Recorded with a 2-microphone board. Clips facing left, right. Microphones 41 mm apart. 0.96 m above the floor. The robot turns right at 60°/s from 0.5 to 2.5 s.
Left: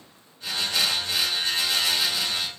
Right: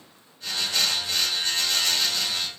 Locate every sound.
Only background noise.